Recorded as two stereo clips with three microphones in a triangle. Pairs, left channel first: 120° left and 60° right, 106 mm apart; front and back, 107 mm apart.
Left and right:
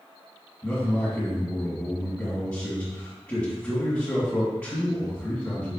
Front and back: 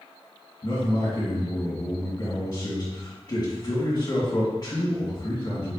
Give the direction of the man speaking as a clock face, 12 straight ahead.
10 o'clock.